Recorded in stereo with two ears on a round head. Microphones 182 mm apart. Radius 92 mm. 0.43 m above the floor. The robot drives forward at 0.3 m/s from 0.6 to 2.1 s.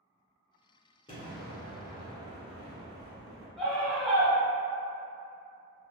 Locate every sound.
1.1 s an explosion: 20° left (ahead or behind), 1.2 m
3.6 s a scream: centre (ahead or behind), 1.4 m